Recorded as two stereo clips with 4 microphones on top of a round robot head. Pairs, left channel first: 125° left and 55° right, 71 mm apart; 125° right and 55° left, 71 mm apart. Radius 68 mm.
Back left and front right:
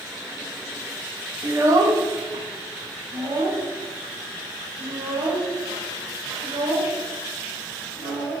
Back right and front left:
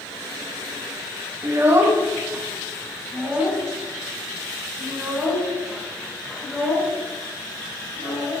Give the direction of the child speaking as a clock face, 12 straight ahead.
12 o'clock.